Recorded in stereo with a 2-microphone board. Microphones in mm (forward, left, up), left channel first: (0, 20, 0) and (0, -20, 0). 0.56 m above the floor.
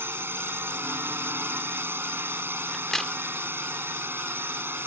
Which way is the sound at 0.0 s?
65° right (ahead or behind).